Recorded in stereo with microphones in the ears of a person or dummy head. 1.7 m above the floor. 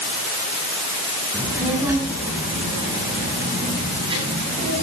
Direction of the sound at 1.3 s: 5° right (ahead or behind).